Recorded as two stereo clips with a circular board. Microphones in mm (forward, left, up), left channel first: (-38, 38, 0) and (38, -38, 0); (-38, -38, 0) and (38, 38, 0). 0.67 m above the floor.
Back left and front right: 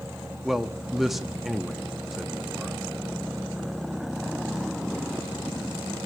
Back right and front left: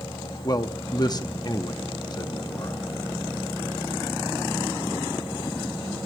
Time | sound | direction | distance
0.4 | a man speaking | 130° right | 0.8 m